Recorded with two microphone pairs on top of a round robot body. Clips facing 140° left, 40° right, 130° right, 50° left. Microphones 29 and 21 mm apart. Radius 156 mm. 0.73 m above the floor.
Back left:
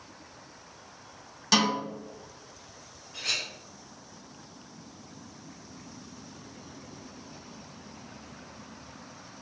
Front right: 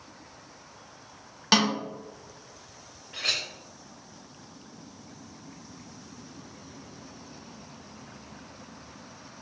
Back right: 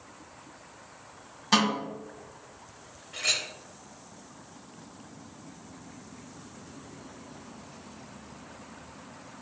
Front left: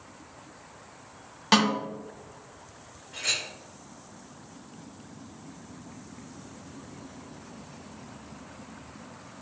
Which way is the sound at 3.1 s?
60° right.